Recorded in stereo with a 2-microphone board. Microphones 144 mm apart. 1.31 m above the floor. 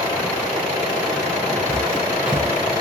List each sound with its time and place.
1.7 s footsteps: 10° right (ahead or behind), 3 m